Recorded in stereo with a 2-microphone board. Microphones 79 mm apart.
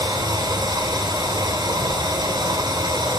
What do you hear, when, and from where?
0.0 s running water: 70° right (ahead or behind), 9.5 m